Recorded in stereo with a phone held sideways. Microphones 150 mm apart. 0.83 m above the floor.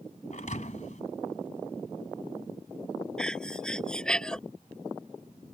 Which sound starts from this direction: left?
A thud, at 0.3 s.